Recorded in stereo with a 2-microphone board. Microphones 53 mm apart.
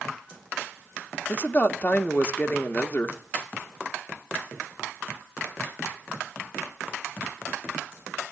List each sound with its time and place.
1.3 s a woman speaking: 30° left (ahead or behind), 1.2 m